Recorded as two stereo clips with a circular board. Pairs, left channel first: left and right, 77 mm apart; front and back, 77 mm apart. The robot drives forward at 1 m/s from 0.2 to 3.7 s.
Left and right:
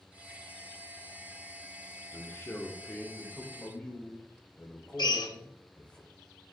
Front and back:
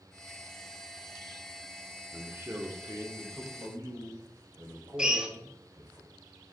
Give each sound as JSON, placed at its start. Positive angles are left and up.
{"t": 2.1, "sound": "a man speaking", "azimuth_deg": 115, "distance_m": 0.9}
{"t": 5.0, "sound": "a drill", "azimuth_deg": 100, "distance_m": 0.7}